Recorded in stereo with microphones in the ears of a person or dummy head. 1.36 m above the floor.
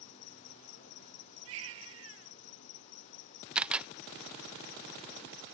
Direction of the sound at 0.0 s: 65° left (ahead or behind).